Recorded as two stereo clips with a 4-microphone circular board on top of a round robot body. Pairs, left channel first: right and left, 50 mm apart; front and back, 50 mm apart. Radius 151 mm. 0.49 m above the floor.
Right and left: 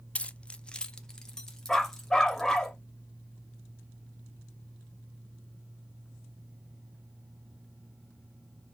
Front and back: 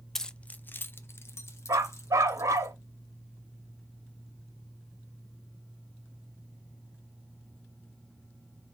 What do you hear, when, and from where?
0.1 s keys jangling: 75° right, 0.6 m; by 2.7 s 10° right, 2.0 m
1.7 s a dog barking: 170° right, 0.5 m